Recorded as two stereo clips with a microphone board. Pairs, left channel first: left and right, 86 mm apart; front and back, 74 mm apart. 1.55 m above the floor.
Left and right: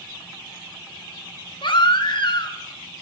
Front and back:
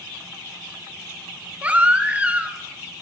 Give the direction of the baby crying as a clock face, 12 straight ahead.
8 o'clock.